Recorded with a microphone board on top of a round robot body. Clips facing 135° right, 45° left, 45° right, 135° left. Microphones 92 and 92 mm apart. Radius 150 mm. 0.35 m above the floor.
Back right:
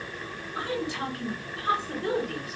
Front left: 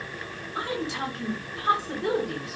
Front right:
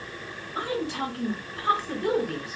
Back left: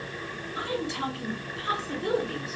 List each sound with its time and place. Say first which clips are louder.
0.6 s a woman speaking: front left 1 dB, front right 2 dB; 25° right, 2.5 m